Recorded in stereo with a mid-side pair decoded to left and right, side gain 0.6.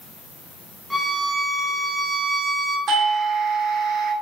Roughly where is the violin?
Ahead.